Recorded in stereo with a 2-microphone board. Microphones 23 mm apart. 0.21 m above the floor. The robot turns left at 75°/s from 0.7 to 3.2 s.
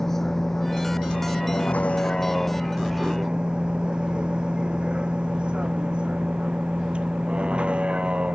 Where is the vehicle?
15° left (ahead or behind); by 8.3 s 55° right (ahead or behind).